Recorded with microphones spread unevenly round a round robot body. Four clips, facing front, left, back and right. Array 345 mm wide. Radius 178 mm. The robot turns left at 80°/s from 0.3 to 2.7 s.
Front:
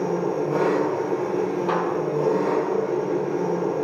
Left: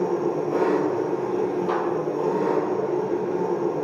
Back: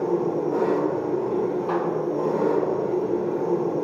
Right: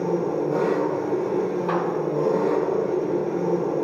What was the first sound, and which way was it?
An engine running, 55° left.